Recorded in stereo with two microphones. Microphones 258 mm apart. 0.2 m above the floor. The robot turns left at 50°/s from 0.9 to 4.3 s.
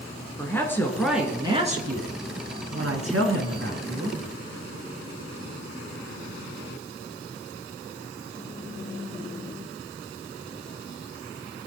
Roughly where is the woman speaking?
Ahead.